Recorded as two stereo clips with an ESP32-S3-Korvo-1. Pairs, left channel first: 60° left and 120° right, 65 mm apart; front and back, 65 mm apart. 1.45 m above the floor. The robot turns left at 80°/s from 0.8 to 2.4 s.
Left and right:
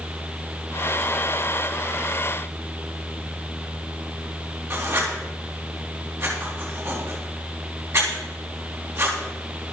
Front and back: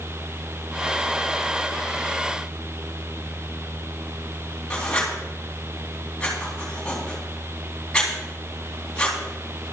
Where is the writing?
75° right, 3.5 m.